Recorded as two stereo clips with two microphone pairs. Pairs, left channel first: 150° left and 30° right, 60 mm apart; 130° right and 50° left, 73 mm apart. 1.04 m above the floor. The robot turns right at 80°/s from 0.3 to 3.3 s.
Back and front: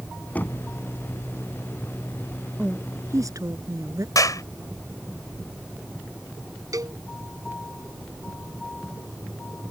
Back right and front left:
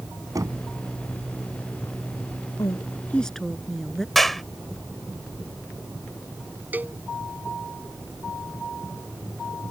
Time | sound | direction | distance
0.3 | knocking | 85° left | ?
2.6 | a woman speaking | 105° right | ?
4.2 | a clap | 140° left | ?
6.7 | a cowbell | 15° right | ?